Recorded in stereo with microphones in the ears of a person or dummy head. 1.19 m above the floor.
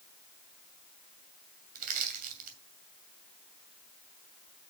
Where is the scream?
I don't hear a scream.